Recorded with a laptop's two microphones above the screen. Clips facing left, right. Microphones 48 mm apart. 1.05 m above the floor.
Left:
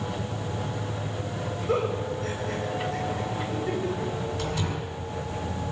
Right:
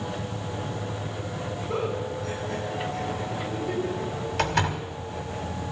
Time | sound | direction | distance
1.7 | a giggle | 85° left | 5 m
4.4 | a door slam | 75° right (ahead or behind) | 2 m